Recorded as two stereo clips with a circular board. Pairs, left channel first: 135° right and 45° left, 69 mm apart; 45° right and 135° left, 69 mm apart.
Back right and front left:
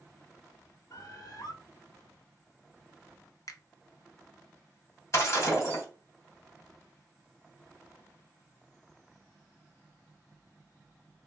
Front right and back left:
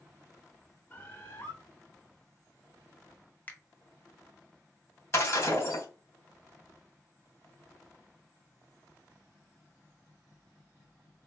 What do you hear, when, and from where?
0.9 s a bird: 105° right, 1.1 m
3.5 s a finger snap: 110° right, 0.6 m
5.1 s breaking glass: 90° right, 1.9 m